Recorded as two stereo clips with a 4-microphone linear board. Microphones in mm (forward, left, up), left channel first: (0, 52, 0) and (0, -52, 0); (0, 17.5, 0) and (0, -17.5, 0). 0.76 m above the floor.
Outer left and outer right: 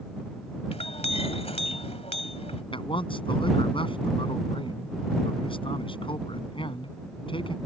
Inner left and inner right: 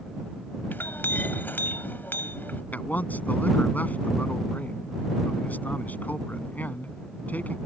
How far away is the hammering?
No hammering in this recording.